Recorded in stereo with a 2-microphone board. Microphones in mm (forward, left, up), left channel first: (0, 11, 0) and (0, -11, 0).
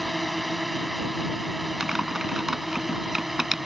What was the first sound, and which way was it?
A drone, centre (ahead or behind).